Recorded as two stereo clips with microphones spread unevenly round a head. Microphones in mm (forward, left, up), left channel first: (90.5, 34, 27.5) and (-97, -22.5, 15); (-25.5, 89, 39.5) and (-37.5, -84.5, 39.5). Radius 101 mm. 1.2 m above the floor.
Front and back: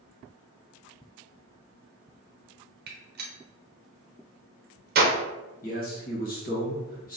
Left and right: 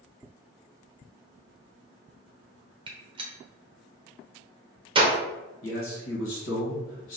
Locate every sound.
2.9 s a gunshot: 150° right, 0.7 m
5.6 s a man speaking: 65° left, 1.1 m